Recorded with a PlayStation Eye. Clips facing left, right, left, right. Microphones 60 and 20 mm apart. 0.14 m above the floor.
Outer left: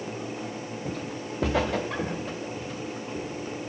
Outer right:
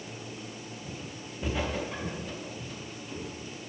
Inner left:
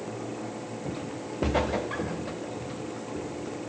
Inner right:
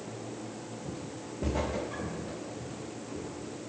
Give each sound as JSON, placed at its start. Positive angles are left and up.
{"t": 0.8, "sound": "footsteps", "side_deg": 70, "distance_m": 0.7}